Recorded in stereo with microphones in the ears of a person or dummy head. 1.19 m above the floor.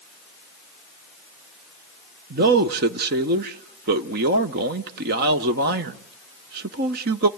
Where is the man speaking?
45° right (ahead or behind), 0.6 m.